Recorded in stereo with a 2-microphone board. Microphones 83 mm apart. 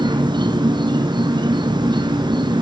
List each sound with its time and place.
0.0 s an insect: 65° right (ahead or behind), 1.8 m